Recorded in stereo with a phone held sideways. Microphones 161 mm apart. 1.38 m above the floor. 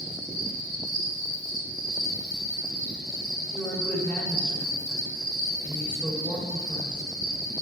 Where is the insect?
20° right (ahead or behind), 2.5 m.